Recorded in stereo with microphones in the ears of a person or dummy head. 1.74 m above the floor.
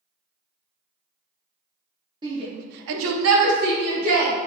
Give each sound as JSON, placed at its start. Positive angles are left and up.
{"t": 2.2, "sound": "a shout", "side_deg": -20, "distance_m": 0.8}